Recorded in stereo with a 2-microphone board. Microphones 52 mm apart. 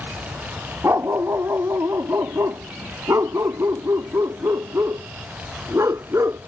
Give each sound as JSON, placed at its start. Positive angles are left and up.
{"t": 0.8, "sound": "a dog barking", "side_deg": -60}